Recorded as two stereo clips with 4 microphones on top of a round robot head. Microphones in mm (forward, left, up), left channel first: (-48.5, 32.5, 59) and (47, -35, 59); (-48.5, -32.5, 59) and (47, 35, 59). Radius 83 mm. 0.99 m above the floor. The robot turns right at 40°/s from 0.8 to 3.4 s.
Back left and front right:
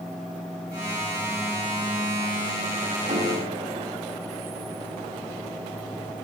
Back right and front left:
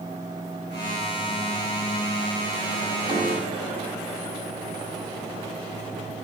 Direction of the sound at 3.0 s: 15° right.